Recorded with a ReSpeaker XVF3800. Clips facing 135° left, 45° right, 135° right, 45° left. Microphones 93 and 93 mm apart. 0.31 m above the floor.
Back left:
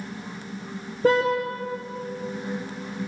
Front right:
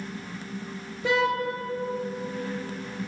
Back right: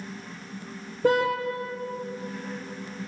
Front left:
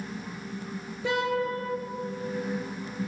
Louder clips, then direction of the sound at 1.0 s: Back left 4 dB, back right 6 dB; straight behind.